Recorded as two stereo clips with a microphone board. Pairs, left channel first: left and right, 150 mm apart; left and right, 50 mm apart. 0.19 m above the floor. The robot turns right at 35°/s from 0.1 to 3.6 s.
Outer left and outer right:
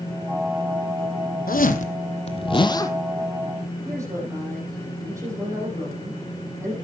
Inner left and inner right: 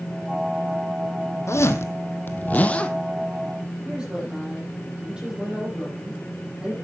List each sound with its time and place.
1.5 s a zipper: 110° left, 1.0 m; by 2.9 s 160° left, 1.0 m
3.9 s a woman speaking: 20° right (ahead or behind), 8 m